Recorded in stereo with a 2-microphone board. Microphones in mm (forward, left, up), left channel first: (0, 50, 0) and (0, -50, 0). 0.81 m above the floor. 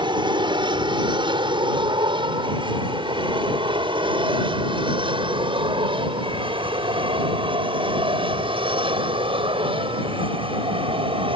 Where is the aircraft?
45° right (ahead or behind); by 11.4 s 55° right (ahead or behind).